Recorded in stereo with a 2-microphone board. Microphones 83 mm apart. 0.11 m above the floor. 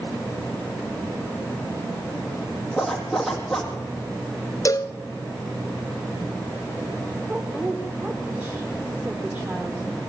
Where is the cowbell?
40° left (ahead or behind), 0.7 m.